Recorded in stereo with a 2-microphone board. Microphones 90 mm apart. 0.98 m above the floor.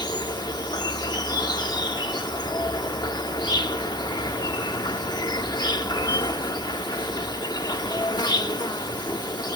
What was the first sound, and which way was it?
An insect, 50° left (ahead or behind).